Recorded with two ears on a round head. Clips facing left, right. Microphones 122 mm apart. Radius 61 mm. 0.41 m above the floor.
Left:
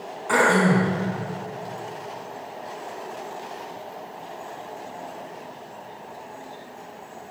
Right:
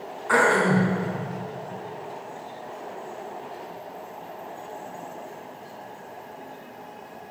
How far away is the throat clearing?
About 4.5 m.